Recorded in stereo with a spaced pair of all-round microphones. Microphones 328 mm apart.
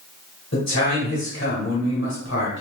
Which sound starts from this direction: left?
A man speaking, at 0.5 s.